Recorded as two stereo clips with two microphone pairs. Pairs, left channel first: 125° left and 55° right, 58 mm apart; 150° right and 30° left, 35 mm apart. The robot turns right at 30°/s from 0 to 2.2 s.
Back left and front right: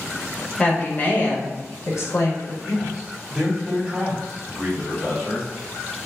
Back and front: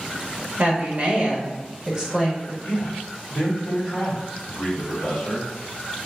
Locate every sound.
0.6 s a woman speaking: 55° left, 0.9 m; by 2.5 s 105° left, 0.9 m
2.6 s a man speaking: 140° right, 1.1 m